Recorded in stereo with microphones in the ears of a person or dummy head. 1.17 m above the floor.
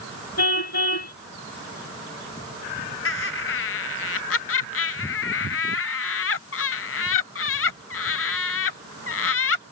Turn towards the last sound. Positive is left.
turn(degrees=65)  # may be behind; listen again after turning